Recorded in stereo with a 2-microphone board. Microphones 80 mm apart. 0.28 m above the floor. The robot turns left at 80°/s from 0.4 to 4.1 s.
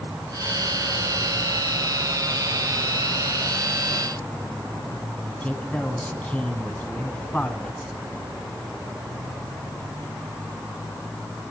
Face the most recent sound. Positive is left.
turn(degrees=15)  # may be behind; listen again after turning